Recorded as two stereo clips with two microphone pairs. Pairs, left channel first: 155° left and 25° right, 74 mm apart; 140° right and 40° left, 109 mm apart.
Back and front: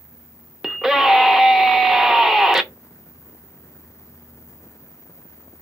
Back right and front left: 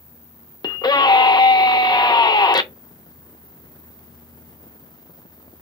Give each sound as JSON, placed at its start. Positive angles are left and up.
{"t": 0.6, "sound": "a scream", "azimuth_deg": -105, "distance_m": 0.5}